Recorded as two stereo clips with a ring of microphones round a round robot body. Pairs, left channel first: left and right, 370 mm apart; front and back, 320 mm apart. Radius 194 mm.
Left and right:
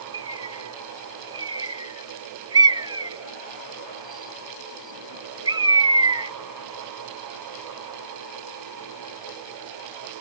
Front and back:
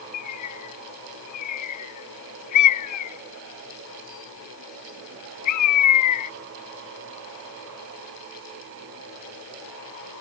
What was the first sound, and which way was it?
A bird, 15° right.